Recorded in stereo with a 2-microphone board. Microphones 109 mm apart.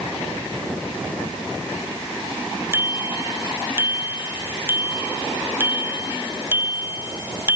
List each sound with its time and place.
2.7 s a bicycle bell: 20° right (ahead or behind)